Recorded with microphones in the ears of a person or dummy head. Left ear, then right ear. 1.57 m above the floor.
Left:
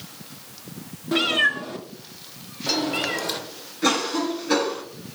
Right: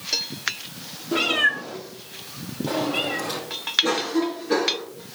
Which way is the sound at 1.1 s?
50° left (ahead or behind).